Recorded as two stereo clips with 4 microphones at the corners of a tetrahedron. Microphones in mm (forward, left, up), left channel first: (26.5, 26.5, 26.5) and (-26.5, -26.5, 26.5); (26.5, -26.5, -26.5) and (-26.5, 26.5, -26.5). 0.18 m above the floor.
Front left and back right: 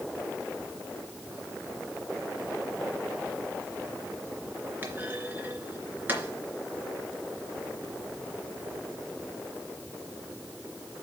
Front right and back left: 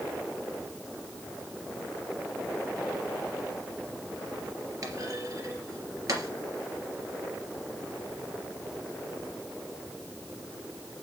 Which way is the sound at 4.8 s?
165° left.